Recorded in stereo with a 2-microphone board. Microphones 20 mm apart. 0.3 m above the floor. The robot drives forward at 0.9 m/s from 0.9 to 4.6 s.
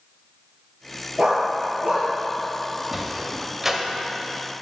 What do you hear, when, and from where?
1.2 s a dog barking: 70° right (ahead or behind), 1.8 m; by 2.1 s 50° right (ahead or behind), 2.5 m
2.9 s a sliding door: 15° right (ahead or behind), 1.1 m